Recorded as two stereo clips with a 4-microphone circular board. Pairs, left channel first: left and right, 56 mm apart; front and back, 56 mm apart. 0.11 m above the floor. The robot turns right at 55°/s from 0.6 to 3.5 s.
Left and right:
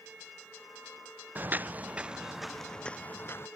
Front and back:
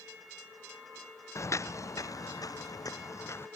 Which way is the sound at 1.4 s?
30° right.